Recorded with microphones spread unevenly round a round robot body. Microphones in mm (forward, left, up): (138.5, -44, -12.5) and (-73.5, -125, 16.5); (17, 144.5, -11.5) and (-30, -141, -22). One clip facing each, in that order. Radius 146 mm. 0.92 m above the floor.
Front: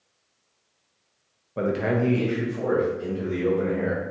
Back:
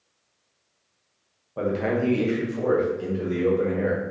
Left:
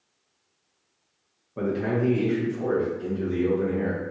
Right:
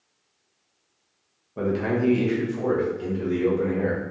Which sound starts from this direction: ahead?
A man speaking, at 1.6 s.